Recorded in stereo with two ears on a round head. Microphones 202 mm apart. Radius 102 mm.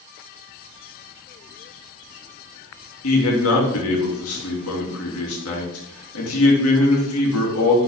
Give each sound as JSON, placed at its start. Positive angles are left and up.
{"t": 3.0, "sound": "a man speaking", "side_deg": 70, "distance_m": 2.5}